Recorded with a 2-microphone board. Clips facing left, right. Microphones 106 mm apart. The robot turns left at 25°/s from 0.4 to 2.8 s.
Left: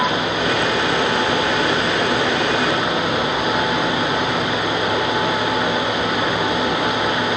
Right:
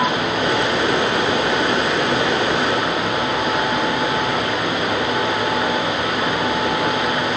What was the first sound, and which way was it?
Only background noise.